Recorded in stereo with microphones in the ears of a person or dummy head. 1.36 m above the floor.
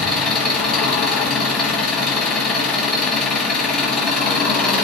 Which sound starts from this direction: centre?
An engine running, at 0.0 s.